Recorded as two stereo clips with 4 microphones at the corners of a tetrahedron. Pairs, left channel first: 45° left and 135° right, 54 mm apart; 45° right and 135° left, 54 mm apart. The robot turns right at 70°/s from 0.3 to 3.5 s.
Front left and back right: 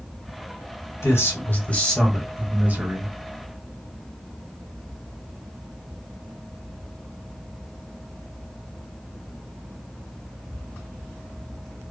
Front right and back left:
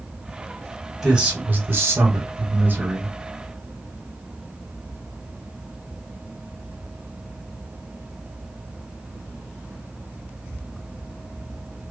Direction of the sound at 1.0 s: 50° left.